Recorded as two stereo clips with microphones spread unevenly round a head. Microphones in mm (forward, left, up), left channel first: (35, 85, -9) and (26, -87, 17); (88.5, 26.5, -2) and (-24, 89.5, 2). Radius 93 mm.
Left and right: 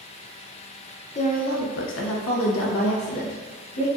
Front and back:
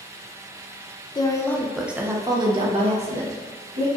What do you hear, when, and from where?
1.1 s a woman speaking: 35° left, 0.7 m; by 4.0 s 125° left, 1.4 m